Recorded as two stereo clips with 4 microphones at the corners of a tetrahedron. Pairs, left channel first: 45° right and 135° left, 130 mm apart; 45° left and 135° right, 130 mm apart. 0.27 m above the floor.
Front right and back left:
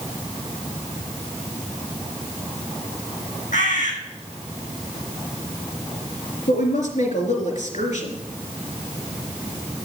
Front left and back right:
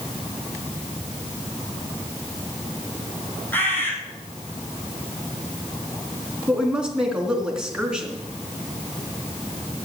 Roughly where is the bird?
Ahead right.